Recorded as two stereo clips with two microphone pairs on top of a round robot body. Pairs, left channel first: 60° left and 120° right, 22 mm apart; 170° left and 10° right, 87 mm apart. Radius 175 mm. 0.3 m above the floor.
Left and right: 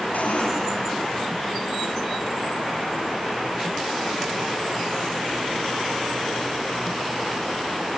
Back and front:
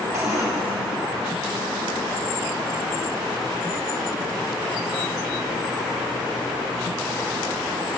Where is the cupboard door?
50° left, 5.5 m.